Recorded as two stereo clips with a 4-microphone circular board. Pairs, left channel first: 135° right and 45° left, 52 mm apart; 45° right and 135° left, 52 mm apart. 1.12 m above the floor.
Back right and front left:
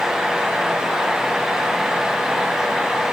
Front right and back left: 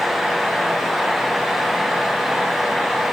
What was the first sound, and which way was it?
Only background noise.